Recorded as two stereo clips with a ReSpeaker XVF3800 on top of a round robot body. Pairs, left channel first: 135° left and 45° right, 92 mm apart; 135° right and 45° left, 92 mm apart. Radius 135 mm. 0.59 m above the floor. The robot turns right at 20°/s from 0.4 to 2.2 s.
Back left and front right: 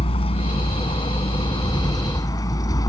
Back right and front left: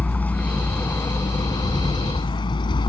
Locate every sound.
0.0 s a vehicle: 150° left; by 2.9 s 175° right